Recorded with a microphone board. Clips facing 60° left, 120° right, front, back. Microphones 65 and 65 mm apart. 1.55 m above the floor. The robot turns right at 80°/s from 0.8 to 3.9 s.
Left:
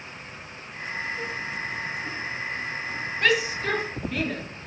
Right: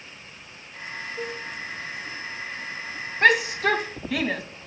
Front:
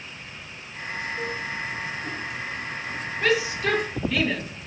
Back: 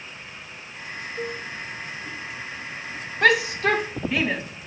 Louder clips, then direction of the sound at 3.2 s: Right 5 dB, back 4 dB; 170° right.